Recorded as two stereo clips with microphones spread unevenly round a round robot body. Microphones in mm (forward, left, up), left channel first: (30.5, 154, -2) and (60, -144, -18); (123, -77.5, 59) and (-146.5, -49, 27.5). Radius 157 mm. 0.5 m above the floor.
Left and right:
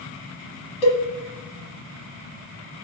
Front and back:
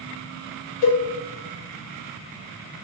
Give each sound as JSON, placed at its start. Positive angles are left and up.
{"t": 0.8, "sound": "a cowbell", "azimuth_deg": 25, "distance_m": 1.4}